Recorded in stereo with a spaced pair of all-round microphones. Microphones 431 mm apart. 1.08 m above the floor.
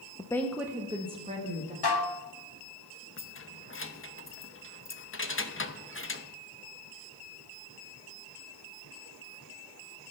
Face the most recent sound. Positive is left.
turn(degrees=30)  # may be behind; listen again after turning